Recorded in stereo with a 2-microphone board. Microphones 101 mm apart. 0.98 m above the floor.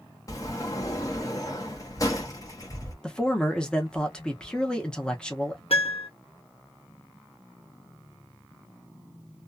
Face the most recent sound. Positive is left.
turn(degrees=75)  # may be behind; listen again after turning